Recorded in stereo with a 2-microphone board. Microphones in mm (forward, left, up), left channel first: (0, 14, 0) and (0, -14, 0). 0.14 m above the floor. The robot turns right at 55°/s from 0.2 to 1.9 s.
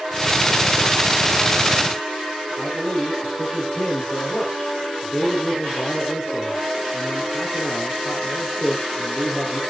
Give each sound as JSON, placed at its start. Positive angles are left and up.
{"t": 2.6, "sound": "a man speaking", "side_deg": 50, "distance_m": 5.0}